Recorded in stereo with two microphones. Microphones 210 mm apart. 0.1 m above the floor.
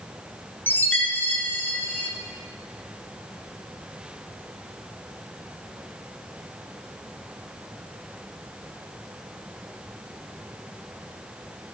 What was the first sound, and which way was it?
A chime, 10° left (ahead or behind).